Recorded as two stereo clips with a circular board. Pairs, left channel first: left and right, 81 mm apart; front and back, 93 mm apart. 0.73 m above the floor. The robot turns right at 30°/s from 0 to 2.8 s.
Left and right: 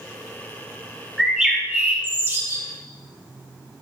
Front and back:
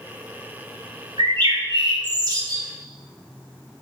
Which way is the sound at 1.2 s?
175° right.